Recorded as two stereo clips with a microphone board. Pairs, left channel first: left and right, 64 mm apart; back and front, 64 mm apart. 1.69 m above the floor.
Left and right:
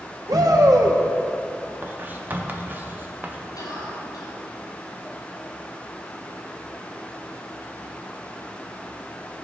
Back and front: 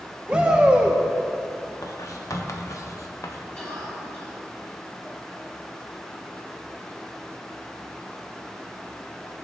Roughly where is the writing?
Behind right.